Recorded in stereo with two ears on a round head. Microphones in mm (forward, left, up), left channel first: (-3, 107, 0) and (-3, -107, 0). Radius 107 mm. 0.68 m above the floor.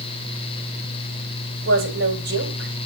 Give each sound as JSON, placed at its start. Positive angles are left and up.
{"t": 1.6, "sound": "a woman speaking", "side_deg": -55, "distance_m": 2.5}